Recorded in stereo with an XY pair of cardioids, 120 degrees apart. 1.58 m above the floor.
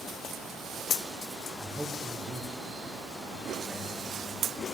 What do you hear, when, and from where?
1.6 s a man speaking: 10° right, 1.0 m; by 4.5 s 5° right, 3 m